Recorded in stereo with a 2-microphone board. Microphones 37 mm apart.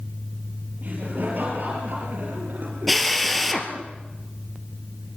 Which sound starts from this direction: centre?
A drill, at 2.9 s.